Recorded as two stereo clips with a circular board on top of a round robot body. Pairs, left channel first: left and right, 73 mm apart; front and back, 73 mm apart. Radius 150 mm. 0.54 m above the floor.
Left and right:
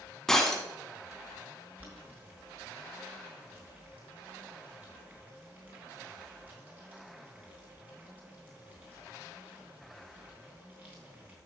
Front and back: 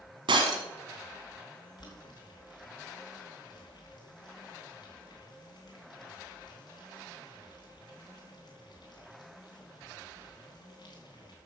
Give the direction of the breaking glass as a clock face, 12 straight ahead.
6 o'clock.